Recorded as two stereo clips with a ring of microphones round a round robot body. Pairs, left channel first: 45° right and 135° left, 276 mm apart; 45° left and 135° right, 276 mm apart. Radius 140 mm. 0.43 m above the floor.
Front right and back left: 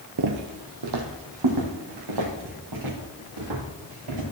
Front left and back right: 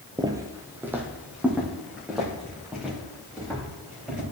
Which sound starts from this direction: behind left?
Footsteps, at 0.2 s.